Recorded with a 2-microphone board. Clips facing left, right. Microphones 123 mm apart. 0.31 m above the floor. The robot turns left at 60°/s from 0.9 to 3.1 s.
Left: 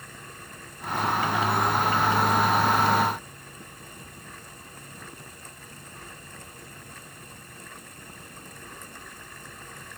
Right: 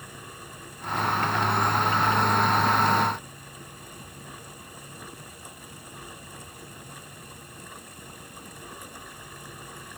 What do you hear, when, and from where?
Only background noise.